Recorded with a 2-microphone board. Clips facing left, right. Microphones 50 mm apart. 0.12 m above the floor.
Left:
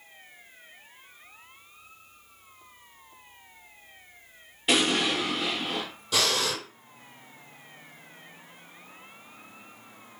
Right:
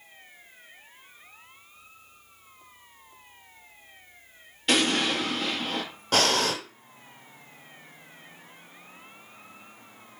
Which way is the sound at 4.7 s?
10° left (ahead or behind).